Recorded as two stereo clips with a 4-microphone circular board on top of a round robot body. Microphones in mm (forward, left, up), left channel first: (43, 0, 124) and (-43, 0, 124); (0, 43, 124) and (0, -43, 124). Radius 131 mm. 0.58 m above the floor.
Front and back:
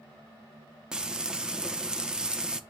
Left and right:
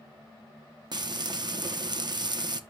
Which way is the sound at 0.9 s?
100° right.